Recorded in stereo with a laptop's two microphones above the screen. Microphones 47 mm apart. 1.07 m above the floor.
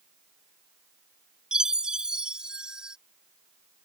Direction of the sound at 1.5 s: 20° right (ahead or behind).